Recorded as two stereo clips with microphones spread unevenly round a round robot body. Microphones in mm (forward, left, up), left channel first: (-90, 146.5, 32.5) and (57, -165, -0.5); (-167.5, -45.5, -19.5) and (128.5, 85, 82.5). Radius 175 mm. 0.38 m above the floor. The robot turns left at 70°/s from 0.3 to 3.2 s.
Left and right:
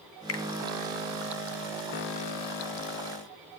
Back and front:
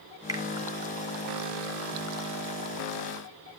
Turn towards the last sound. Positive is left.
turn(degrees=-80)